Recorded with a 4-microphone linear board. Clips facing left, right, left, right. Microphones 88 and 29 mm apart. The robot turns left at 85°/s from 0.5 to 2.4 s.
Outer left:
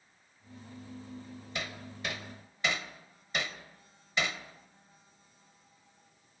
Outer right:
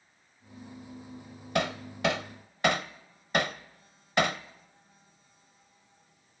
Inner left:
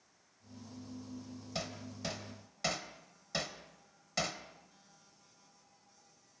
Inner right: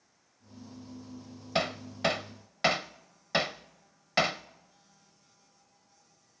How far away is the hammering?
About 0.6 m.